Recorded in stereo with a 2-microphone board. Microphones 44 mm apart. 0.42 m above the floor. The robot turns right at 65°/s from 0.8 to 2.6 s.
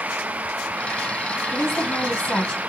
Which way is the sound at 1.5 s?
95° left.